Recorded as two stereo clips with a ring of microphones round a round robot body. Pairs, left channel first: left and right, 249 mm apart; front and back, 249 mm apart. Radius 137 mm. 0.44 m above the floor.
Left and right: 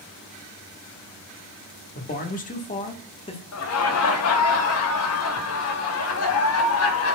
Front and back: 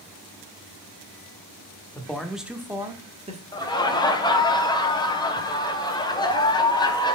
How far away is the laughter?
About 1.6 m.